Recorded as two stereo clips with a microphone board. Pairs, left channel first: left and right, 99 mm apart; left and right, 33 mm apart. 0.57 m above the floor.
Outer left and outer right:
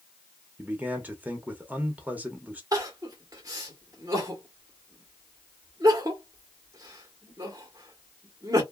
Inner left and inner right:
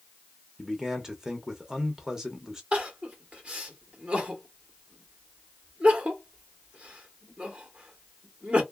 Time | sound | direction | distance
0.6 | a man speaking | 20° right (ahead or behind) | 0.6 m
2.7 | crying | 40° right (ahead or behind) | 1.2 m